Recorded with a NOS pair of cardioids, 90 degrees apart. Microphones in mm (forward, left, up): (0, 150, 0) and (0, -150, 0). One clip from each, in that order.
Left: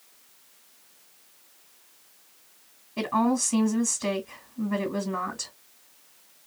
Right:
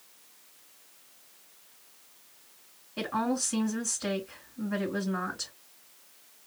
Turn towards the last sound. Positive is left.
turn(degrees=40)